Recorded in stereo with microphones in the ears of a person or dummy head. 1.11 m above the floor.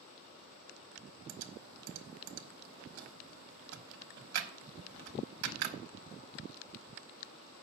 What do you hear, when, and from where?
1.3 s typing on a keyboard: 55° right (ahead or behind), 1.2 m